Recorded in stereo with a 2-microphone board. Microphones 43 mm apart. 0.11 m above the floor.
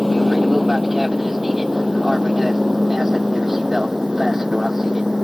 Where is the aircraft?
5° right (ahead or behind); by 5.2 s 10° right (ahead or behind).